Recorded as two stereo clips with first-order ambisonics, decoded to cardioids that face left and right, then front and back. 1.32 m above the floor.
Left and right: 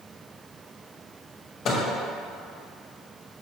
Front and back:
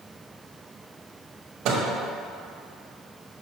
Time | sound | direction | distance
1.6 | a microwave | 145° left | 1.4 m